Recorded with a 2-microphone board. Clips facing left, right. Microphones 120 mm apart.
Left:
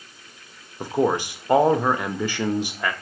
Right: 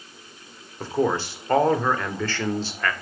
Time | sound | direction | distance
0.8 | a man speaking | 15° left (ahead or behind) | 0.8 m